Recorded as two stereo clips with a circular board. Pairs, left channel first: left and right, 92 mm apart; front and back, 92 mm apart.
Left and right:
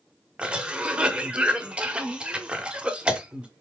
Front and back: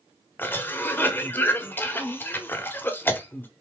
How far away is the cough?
About 0.8 m.